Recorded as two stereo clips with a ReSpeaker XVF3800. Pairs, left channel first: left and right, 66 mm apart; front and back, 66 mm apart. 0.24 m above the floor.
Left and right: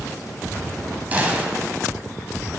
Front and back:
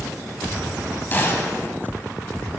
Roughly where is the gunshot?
Ahead right.